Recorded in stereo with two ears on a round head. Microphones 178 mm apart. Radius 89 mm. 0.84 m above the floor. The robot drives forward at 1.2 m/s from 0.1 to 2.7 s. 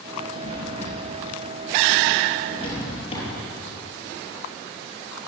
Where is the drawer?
40° left (ahead or behind), 6.5 m; by 3.3 s 25° left (ahead or behind), 9 m.